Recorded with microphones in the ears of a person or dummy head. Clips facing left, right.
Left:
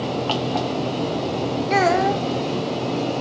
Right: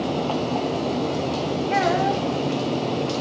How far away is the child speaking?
About 0.5 m.